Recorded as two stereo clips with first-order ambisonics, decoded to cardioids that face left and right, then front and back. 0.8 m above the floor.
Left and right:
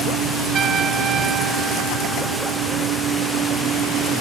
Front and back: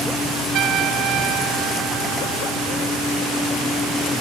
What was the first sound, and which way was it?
A trumpet, 145° right.